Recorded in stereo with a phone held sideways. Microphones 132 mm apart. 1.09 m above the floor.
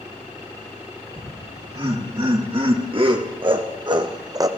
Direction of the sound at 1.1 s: 45° right (ahead or behind).